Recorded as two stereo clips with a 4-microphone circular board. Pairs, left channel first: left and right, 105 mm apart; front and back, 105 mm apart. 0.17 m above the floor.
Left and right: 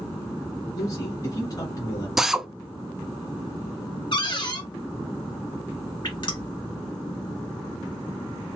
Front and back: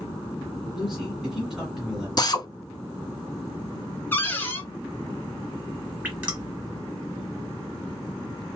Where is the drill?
5° right, 0.6 m.